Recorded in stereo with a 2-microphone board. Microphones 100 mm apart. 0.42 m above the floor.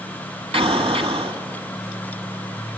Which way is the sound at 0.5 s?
75° right (ahead or behind).